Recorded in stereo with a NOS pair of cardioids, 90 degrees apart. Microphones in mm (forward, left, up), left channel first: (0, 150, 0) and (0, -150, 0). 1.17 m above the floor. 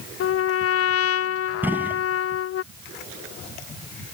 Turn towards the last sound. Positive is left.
turn(degrees=-5)